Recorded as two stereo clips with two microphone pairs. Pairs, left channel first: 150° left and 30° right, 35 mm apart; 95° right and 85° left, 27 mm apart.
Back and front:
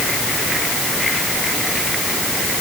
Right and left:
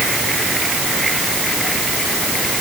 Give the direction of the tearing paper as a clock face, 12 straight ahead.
No tearing paper in this recording.